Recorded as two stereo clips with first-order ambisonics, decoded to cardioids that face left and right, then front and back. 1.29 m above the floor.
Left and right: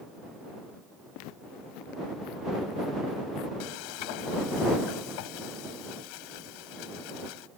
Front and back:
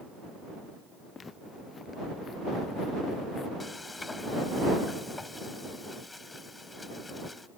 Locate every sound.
1.1 s footsteps: 70° left; by 3.5 s 75° left
3.6 s frying: 80° left